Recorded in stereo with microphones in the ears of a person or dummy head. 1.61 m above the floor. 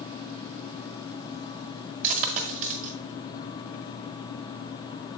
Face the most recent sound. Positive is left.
turn(degrees=-40)  # may be behind; listen again after turning